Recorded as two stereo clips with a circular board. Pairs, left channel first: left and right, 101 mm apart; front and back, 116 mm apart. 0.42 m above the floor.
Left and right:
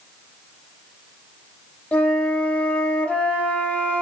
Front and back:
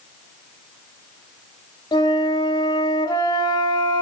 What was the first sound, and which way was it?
A flute, 20° left.